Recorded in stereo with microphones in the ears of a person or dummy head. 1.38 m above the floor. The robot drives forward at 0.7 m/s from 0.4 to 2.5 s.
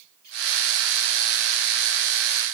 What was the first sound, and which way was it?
Only background noise.